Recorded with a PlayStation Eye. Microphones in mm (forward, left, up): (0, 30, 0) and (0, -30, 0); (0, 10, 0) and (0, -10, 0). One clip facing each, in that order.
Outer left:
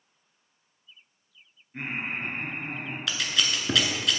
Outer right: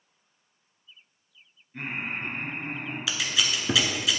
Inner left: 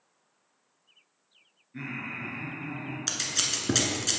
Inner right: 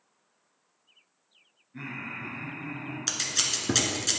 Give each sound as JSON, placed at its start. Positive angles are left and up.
{"t": 1.7, "sound": "laughter", "side_deg": 20, "distance_m": 1.8}
{"t": 3.1, "sound": "scissors", "side_deg": -5, "distance_m": 1.0}